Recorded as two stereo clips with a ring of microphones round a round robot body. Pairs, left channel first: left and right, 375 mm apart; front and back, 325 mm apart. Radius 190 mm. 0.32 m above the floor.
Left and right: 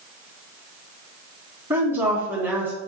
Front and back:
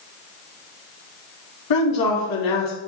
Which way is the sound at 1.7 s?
5° right.